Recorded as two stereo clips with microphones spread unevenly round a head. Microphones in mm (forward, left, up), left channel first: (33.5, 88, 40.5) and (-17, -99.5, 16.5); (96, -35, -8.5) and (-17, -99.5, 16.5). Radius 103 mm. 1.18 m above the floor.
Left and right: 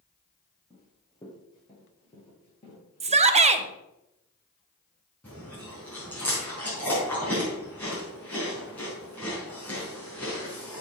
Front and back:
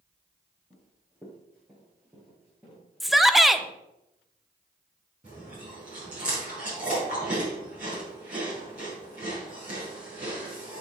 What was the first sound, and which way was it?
Running footsteps, 145° left.